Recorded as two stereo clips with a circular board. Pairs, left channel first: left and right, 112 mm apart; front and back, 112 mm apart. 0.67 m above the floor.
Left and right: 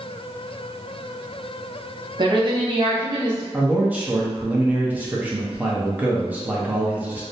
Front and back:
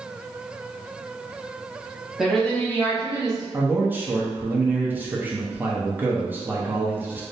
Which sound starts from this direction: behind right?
A man speaking, at 3.5 s.